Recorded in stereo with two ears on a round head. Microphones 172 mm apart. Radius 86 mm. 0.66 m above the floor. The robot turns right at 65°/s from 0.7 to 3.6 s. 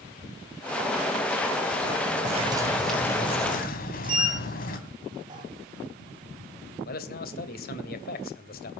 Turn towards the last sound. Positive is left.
turn(degrees=50)  # may be behind; listen again after turning